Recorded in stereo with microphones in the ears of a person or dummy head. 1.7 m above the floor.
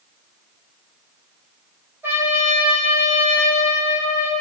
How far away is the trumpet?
About 7.5 m.